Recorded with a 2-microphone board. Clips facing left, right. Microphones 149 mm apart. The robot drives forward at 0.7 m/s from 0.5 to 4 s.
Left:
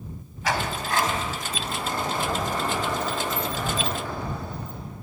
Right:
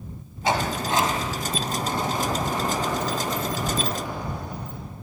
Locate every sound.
0.4 s a sliding door: 25° right (ahead or behind), 2.5 m; by 4.8 s 15° right (ahead or behind), 5 m